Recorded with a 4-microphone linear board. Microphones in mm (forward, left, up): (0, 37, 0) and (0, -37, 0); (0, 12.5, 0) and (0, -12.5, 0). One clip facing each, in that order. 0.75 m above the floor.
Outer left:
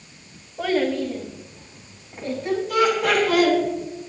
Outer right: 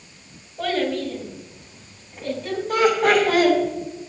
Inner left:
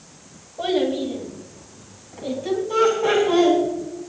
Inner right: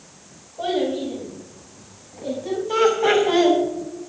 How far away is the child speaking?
About 2 m.